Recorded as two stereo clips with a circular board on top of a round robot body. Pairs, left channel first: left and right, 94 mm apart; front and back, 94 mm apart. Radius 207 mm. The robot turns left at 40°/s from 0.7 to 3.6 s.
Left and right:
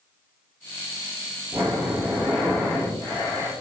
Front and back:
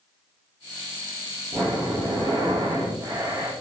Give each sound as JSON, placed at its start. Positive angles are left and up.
{"t": 1.5, "sound": "breathing", "azimuth_deg": -150, "distance_m": 1.8}